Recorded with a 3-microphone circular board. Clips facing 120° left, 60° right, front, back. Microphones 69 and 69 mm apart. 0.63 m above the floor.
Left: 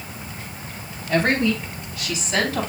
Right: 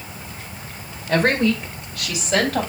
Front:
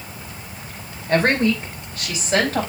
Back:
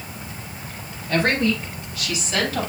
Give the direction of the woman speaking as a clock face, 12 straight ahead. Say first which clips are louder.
Right 2 dB, front 3 dB; 2 o'clock.